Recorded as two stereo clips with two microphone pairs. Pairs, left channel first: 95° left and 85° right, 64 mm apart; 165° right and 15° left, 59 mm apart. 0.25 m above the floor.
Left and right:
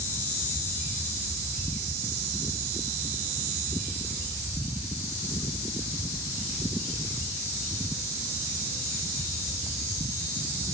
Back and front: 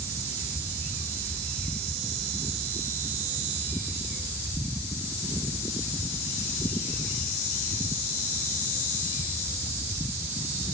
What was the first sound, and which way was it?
Only background noise.